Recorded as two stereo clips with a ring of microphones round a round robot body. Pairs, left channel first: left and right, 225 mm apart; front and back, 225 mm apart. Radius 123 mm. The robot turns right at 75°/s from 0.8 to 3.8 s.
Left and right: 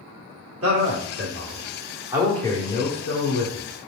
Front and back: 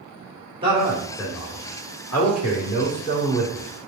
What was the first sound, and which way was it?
A man speaking, 110° right.